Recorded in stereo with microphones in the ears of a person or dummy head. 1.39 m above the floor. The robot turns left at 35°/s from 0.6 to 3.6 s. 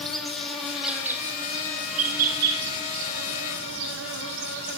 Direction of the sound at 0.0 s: 5° left.